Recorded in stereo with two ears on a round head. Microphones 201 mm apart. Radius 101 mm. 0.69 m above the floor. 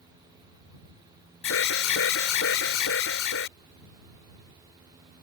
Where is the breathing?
I don't hear breathing.